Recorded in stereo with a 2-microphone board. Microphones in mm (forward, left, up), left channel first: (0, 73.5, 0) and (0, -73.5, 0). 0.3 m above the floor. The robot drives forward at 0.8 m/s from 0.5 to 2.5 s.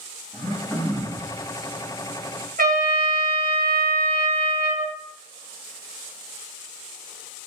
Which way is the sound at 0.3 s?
15° left (ahead or behind).